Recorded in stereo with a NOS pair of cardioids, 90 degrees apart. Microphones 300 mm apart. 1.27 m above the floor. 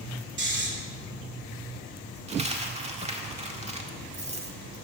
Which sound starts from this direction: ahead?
A dropped coin, at 2.3 s.